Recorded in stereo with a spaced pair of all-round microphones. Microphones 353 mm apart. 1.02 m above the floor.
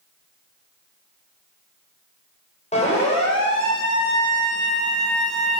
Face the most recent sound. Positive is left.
turn(degrees=10)  # may be behind; listen again after turning